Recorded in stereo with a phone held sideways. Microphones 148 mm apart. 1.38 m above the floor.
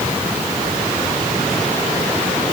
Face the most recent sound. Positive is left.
No sound to turn to.